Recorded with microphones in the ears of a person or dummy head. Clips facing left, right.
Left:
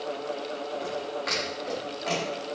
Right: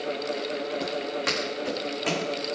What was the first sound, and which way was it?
Footsteps, 70° right (ahead or behind).